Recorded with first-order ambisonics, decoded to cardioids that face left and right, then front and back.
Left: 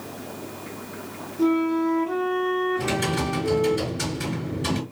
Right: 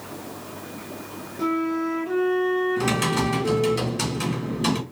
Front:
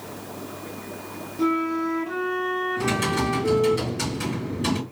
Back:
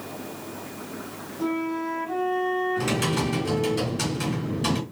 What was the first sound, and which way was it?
A flute, 30° right.